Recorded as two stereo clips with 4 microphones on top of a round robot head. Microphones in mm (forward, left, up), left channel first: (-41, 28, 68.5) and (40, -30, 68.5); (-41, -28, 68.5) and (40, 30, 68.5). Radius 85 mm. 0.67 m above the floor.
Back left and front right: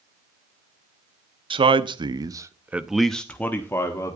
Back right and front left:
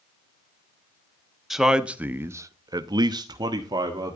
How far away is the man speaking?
About 1.3 m.